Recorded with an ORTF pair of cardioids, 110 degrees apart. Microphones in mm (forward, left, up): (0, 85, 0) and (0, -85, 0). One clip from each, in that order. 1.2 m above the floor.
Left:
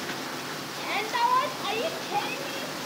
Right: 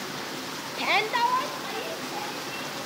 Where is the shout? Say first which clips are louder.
Right 3 dB; 55° right, 0.9 m; by 2.8 s 65° left, 2.5 m.